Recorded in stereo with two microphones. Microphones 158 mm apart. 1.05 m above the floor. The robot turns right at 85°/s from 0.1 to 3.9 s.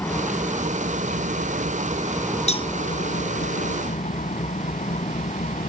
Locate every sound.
0.0 s an engine running: 165° left; by 5.7 s 130° left
2.5 s a cowbell: 45° left (ahead or behind); by 2.7 s 25° left (ahead or behind)